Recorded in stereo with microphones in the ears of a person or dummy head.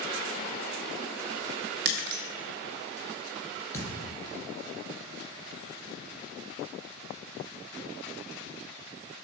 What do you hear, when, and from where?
1.9 s breaking glass: 55° right (ahead or behind), 0.7 m
3.7 s a thud: 15° left (ahead or behind), 2.5 m